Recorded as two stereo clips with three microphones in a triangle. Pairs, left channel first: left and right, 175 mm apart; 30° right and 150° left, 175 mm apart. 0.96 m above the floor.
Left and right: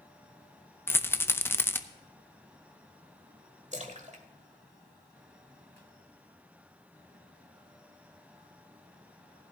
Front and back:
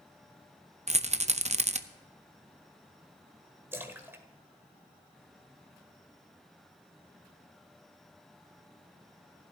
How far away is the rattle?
About 0.6 m.